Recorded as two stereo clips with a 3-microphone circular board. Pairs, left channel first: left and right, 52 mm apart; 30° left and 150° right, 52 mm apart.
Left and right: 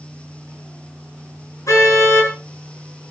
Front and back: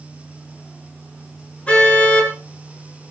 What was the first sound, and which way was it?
A car horn, 100° left.